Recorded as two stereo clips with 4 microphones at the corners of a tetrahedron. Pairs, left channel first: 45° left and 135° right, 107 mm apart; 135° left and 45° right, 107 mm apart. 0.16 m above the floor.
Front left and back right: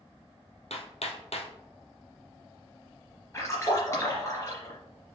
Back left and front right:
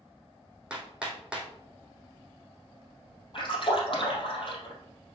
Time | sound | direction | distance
0.7 | hammering | 35° left | 1.7 m
3.3 | a splash | 105° left | 3 m